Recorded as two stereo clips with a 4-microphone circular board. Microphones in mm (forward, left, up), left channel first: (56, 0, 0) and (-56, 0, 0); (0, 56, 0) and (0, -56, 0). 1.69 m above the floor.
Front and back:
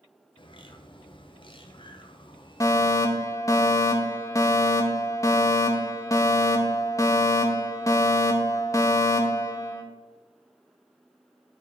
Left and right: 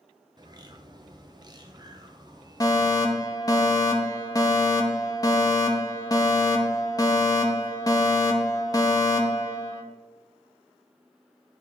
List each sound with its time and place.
0.4 s a bird: 40° right, 0.6 m
2.6 s a fire alarm: 45° left, 0.8 m